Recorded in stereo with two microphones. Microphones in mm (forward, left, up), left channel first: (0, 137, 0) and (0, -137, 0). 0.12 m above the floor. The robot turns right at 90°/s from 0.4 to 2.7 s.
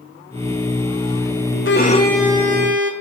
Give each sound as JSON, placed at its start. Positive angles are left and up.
{"t": 1.6, "sound": "a violin", "azimuth_deg": 130, "distance_m": 1.2}